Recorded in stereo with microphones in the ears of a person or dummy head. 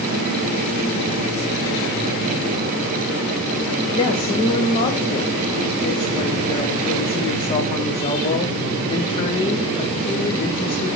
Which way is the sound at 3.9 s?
30° left (ahead or behind).